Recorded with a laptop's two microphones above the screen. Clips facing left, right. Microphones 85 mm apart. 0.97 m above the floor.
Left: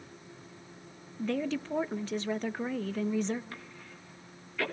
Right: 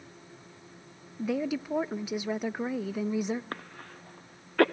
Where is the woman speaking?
10° right (ahead or behind), 0.7 m.